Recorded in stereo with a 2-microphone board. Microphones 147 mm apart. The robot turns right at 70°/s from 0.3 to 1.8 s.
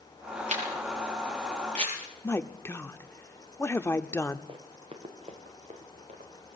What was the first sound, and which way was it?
A camera shutter, 45° right (ahead or behind).